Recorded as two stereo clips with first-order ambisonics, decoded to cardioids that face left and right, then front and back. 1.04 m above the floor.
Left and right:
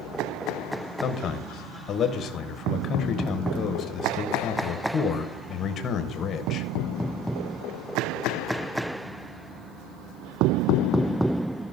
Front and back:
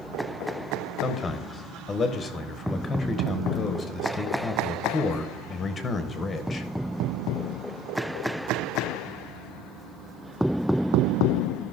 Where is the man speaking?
60° left, 0.7 m.